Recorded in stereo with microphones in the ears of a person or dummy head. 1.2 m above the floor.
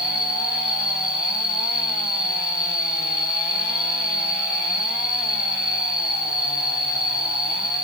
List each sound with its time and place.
0.0 s an insect: 20° right (ahead or behind), 3 m